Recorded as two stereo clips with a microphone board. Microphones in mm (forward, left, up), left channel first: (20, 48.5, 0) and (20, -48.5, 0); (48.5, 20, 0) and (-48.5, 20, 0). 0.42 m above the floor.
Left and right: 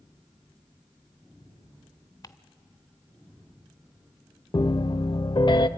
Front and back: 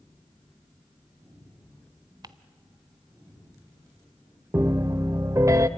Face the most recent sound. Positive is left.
turn(degrees=120)